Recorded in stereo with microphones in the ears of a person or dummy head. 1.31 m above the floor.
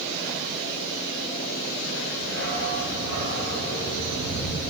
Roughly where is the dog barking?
Right.